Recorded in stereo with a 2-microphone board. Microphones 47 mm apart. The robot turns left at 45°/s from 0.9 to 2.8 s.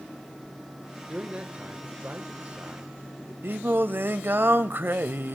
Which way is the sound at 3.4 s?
50° right (ahead or behind).